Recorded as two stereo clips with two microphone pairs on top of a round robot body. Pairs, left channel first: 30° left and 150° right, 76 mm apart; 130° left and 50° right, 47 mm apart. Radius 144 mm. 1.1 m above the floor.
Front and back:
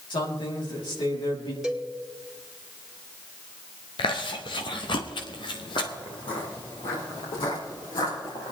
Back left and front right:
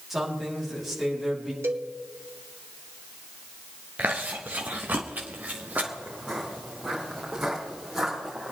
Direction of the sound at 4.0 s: 15° left.